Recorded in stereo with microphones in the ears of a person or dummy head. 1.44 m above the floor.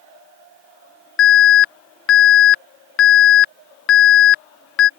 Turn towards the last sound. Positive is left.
turn(degrees=60)  # may be behind; listen again after turning